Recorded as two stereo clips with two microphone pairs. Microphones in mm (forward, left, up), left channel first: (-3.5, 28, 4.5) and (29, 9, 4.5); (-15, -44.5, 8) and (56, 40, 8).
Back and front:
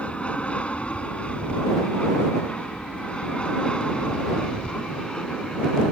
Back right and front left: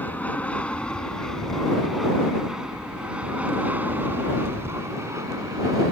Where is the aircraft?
165° left; by 5.9 s 90° left.